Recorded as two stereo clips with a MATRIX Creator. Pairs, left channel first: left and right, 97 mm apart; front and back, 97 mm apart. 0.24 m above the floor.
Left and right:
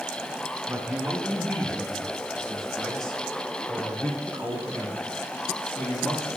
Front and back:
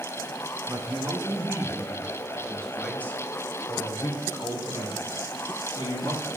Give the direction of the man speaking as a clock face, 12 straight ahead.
6 o'clock.